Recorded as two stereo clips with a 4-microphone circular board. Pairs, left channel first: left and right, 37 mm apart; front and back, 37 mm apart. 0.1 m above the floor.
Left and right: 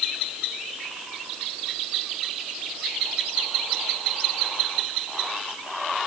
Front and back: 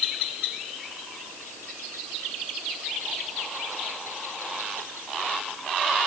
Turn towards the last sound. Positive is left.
No sound to turn to.